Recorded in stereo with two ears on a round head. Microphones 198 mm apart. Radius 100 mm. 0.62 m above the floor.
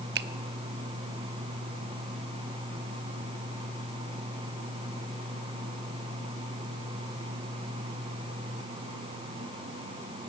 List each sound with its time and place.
0.1 s a finger snap: 50° right (ahead or behind), 0.9 m